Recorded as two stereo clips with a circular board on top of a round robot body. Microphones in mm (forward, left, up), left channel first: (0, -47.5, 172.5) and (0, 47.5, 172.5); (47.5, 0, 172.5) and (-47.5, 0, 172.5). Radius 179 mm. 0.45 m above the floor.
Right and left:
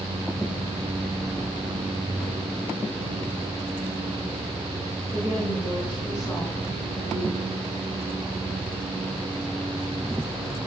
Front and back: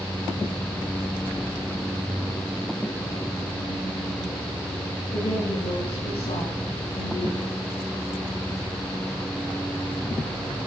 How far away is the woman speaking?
About 5 m.